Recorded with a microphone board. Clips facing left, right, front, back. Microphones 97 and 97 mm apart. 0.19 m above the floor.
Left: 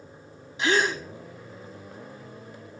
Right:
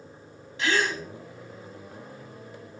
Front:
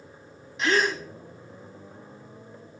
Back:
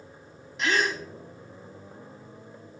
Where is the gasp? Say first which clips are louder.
Left 2 dB, front 2 dB; 90° left, 1.6 m.